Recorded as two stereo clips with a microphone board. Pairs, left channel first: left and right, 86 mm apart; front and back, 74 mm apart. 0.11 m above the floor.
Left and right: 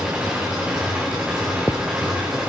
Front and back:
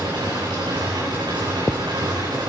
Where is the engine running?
170° right, 6.5 m.